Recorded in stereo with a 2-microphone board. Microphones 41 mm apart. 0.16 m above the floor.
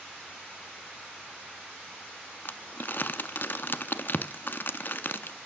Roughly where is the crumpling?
Left.